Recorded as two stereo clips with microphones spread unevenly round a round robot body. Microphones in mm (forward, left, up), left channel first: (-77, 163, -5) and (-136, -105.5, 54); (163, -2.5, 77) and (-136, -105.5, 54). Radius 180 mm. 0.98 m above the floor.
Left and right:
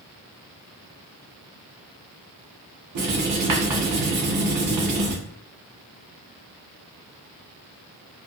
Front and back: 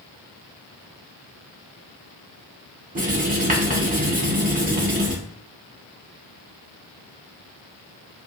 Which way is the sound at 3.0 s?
110° right.